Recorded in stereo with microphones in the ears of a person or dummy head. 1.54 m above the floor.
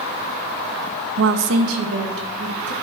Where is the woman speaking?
55° right (ahead or behind), 0.5 m; by 2.7 s 85° right, 2.5 m.